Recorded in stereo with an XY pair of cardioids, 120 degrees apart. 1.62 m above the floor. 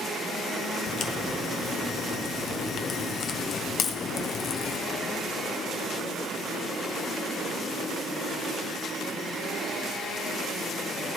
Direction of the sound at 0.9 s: 50° left.